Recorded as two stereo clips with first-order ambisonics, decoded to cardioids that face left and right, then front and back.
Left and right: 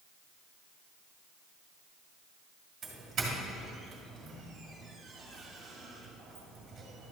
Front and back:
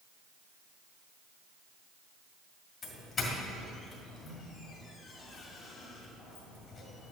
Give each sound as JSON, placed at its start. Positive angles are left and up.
{"t": 2.8, "sound": "a doorbell", "azimuth_deg": -50, "distance_m": 1.9}